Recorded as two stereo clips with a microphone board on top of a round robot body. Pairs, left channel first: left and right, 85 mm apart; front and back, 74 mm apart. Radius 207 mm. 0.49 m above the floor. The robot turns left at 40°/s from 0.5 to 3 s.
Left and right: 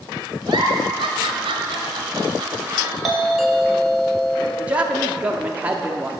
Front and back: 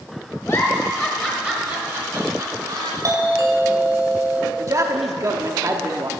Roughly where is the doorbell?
Behind.